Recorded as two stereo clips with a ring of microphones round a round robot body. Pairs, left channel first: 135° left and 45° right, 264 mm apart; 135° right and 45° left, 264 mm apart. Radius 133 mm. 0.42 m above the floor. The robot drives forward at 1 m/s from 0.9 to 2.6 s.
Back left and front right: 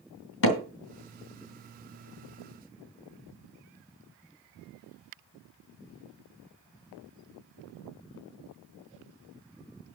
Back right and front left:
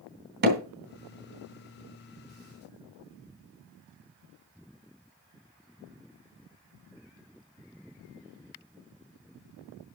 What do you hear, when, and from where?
0.4 s hammering: 95° left, 2.5 m